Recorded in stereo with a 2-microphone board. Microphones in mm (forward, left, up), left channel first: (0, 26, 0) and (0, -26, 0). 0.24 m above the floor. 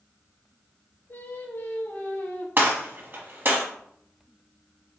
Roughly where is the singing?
Left.